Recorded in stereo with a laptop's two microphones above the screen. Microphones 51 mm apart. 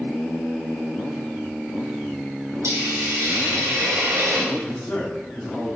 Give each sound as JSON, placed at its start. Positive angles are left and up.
{"t": 2.6, "sound": "a hiss", "side_deg": -80, "distance_m": 2.5}
{"t": 4.5, "sound": "a man speaking", "side_deg": 25, "distance_m": 2.5}